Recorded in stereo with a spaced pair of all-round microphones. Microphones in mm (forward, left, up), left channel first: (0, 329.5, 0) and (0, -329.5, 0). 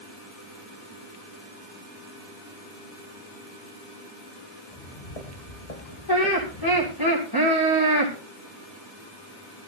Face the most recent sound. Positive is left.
turn(degrees=30)  # may be behind; listen again after turning